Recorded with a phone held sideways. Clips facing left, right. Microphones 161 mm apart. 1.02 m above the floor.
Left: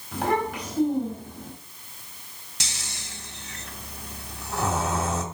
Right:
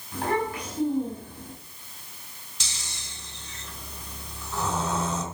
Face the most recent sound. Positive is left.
turn(degrees=75)  # may be behind; listen again after turning